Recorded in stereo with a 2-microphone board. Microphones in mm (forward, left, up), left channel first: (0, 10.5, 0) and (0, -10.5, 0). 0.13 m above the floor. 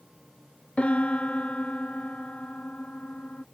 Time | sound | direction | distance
0.8 | a piano | 65° left (ahead or behind) | ?